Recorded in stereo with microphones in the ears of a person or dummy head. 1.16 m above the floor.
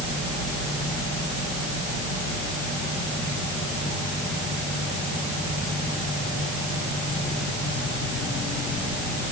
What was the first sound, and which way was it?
Only background noise.